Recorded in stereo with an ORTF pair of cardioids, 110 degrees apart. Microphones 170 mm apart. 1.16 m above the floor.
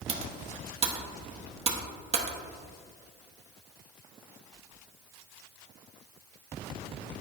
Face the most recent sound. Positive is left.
turn(degrees=-35)